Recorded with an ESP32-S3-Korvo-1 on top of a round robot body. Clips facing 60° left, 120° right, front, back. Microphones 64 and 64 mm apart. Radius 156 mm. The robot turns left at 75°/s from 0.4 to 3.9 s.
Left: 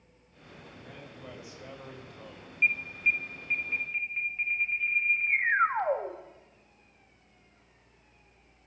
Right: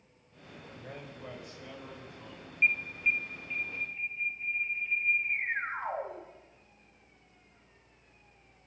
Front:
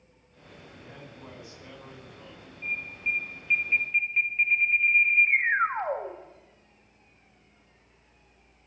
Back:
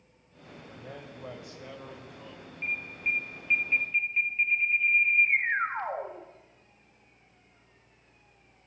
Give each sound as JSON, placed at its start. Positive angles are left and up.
{"t": 0.7, "sound": "a man speaking", "azimuth_deg": -155, "distance_m": 6.5}
{"t": 2.6, "sound": "an alarm", "azimuth_deg": 160, "distance_m": 3.5}